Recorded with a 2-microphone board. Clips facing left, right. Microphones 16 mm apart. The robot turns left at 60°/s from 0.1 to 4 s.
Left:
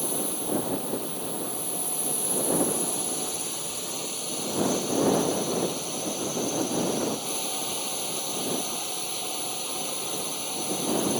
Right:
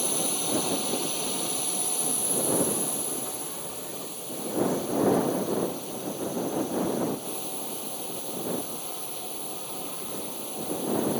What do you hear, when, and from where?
0.0 s a drone: 35° right; by 11.2 s 90° left